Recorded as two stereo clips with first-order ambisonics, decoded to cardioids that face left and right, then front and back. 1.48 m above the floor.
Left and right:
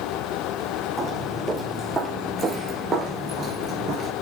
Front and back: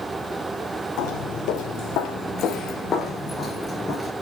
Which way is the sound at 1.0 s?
10° right.